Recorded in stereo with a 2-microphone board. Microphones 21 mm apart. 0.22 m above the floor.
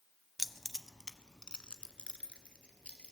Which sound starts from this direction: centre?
Keys jangling, at 0.4 s.